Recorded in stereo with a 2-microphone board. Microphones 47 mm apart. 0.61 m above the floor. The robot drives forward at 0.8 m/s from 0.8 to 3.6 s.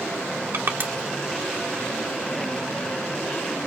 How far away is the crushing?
About 1.5 m.